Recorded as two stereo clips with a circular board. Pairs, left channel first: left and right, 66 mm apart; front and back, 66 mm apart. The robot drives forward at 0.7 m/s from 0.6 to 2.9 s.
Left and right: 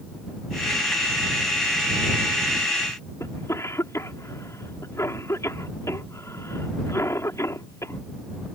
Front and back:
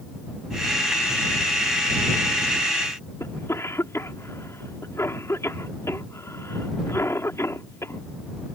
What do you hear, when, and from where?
3.2 s a cough: 45° left